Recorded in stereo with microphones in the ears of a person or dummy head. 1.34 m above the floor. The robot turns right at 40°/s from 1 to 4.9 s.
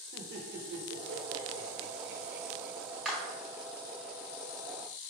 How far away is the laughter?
About 0.9 m.